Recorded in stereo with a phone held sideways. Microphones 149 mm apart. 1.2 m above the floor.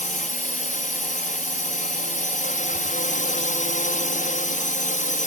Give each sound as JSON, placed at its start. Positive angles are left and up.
{"t": 0.0, "sound": "a drone", "side_deg": 60}